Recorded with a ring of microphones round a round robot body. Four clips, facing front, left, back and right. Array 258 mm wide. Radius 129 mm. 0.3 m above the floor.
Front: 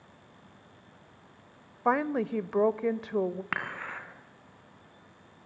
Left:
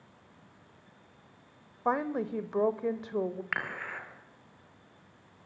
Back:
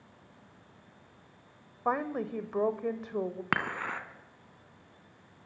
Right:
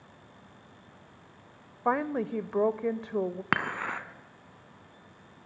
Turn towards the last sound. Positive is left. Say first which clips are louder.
# right 6 dB, back 3 dB
turn(degrees=-120)